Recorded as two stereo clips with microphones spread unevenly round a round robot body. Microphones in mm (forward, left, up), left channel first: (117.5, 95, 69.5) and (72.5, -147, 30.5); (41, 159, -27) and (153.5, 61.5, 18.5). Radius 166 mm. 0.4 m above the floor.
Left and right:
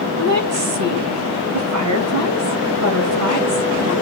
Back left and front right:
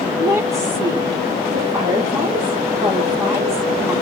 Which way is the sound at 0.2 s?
115° right.